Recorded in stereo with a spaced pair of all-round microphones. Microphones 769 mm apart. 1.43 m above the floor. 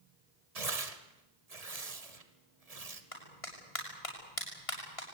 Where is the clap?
45° left (ahead or behind), 6.5 m.